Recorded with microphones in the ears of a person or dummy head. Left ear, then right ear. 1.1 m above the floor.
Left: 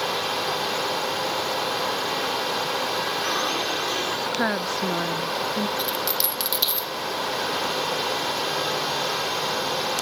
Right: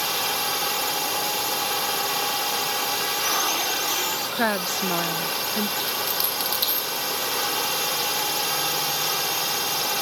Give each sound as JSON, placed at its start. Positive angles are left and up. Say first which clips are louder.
{"t": 0.0, "sound": "a drone", "louder": "even", "side_deg": -35}
{"t": 4.3, "sound": "a woman speaking", "louder": "even", "side_deg": -30}
{"t": 5.8, "sound": "a dropped coin", "louder": "left 1 dB", "side_deg": 10}